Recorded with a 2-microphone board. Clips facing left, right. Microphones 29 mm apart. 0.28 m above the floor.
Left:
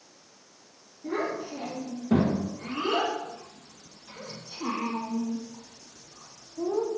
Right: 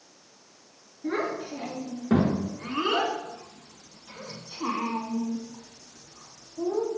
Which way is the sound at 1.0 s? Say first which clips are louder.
Right 1 dB; 60° right (ahead or behind).